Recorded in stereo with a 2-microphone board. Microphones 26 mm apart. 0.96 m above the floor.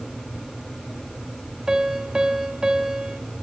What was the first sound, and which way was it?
A piano, 30° right (ahead or behind).